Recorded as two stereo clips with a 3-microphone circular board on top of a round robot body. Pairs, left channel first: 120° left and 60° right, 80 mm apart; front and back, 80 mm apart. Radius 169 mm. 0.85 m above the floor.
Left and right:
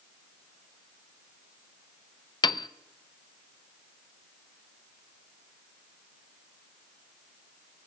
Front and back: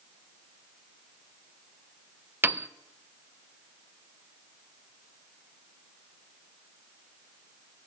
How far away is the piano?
About 0.6 m.